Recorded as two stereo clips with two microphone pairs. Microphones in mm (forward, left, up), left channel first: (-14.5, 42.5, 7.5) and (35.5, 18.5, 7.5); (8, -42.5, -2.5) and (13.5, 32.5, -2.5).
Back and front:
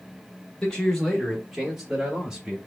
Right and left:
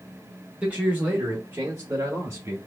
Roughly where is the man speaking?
Behind left.